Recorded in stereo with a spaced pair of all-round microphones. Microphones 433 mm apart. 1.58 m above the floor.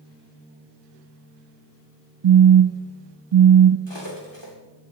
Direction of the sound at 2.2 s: 75° right (ahead or behind).